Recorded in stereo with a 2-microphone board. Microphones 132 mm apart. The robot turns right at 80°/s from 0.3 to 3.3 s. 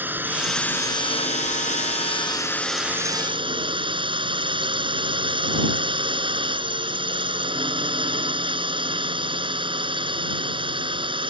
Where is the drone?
15° right; by 11.3 s 135° right.